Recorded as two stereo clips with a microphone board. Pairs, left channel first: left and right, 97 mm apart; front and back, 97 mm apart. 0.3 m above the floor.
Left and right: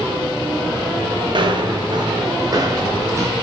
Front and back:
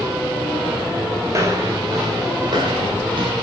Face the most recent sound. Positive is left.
turn(degrees=-150)